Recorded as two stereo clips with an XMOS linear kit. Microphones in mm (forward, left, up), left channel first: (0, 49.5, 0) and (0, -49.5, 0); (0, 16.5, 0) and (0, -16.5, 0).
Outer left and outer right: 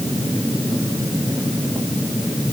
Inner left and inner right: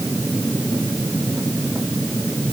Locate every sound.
Only background noise.